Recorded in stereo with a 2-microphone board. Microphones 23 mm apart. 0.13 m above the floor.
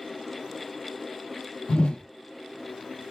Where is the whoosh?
60° left (ahead or behind), 0.6 m.